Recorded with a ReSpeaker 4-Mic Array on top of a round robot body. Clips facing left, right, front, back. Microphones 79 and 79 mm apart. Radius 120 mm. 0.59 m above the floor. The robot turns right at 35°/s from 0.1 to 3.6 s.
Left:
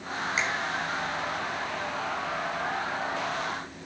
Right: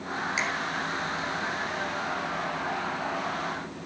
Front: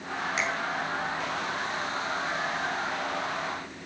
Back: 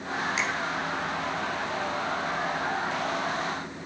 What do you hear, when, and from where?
0.4 s a finger snap: 40° left, 5 m; by 0.5 s 45° left, 5 m